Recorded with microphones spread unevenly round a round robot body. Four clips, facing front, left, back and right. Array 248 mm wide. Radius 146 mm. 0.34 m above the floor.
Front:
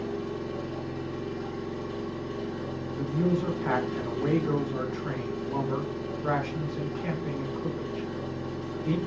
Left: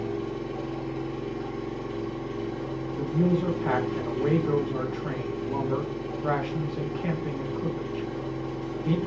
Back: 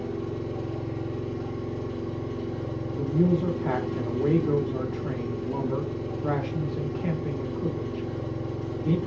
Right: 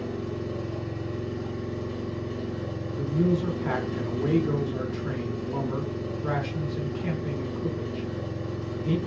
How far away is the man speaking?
About 0.8 m.